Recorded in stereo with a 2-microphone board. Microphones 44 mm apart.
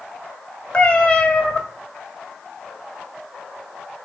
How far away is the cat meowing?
About 1.1 m.